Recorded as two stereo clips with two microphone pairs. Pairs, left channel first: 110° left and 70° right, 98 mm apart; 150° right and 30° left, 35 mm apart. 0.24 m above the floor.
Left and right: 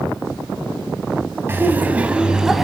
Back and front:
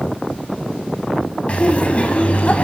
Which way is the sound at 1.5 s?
120° right.